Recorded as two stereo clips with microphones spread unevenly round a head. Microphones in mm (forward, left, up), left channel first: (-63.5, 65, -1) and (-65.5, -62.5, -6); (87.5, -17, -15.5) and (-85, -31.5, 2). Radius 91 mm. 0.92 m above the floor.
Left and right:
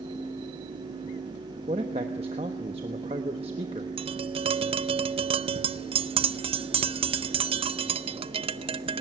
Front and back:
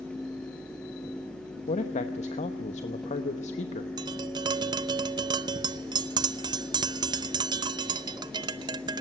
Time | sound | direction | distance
1.7 | a man speaking | 40° right | 1.0 m
4.0 | tapping | 110° right | 0.6 m